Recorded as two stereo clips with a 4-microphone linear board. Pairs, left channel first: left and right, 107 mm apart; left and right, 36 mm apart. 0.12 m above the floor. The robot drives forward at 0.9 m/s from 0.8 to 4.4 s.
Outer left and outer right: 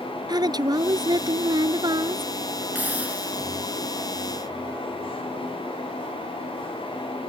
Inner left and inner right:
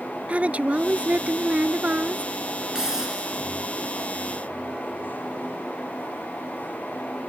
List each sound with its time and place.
0.3 s a woman speaking: 40° right (ahead or behind); by 2.6 s 35° right (ahead or behind)
2.8 s a hiss: 15° right (ahead or behind)